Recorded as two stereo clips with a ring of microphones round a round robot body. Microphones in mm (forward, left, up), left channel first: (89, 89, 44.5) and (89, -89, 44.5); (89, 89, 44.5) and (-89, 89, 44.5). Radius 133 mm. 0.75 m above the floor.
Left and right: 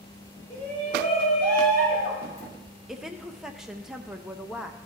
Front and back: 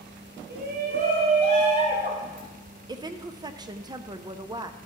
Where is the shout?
160° left, 4 m; by 2.5 s 120° left, 4.5 m.